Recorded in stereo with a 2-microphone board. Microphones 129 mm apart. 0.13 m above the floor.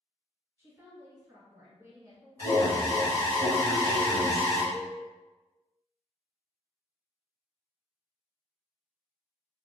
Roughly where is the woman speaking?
Right.